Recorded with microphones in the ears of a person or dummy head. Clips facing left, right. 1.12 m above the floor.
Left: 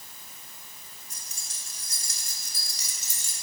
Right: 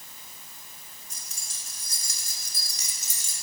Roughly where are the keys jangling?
Right.